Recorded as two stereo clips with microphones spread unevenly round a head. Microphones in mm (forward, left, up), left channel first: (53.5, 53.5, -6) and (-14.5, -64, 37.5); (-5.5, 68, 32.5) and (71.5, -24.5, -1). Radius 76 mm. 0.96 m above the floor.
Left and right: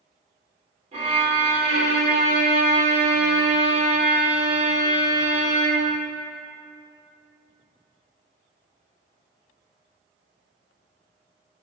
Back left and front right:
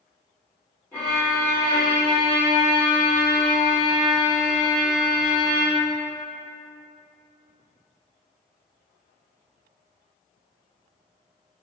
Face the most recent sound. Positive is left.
turn(degrees=-155)